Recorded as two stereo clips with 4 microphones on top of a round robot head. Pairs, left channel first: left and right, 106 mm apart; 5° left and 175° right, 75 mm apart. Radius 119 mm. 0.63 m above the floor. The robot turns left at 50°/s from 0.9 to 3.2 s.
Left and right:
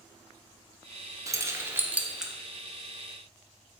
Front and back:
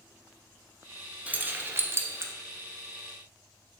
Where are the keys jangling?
120° right, 0.6 m; by 2.3 s 175° right, 0.6 m.